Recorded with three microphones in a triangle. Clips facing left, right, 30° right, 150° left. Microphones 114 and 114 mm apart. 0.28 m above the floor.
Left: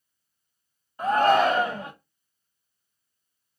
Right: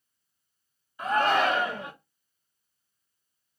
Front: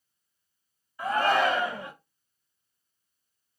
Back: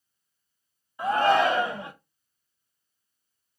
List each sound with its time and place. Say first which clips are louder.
1.0 s a shout: left 4 dB, back 3 dB; 95° left, 1.5 m